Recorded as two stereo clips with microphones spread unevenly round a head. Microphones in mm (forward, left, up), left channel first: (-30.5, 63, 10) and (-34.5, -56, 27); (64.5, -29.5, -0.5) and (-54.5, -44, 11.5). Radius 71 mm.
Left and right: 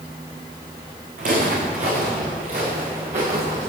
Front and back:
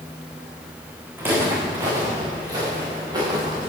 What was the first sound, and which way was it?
Footsteps, 100° right.